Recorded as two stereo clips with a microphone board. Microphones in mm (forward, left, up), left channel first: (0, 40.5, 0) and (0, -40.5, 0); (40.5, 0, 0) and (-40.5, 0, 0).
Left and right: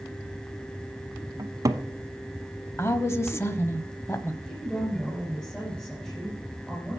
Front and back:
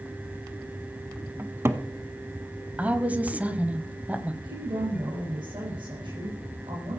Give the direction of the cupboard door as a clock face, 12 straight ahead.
4 o'clock.